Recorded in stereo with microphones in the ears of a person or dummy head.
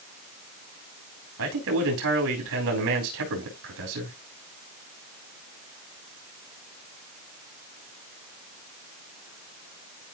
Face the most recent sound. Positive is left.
turn(degrees=-65)  # may be behind; listen again after turning